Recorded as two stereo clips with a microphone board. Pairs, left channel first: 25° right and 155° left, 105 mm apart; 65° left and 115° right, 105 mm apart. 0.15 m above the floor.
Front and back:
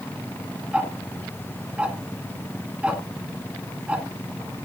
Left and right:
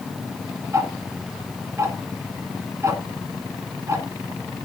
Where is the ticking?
135° right, 1.7 m.